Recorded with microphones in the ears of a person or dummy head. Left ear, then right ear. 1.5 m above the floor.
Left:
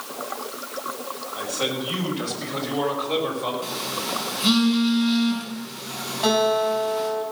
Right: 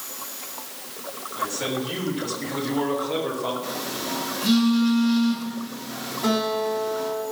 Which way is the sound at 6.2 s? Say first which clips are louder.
Left 4 dB; 55° left (ahead or behind).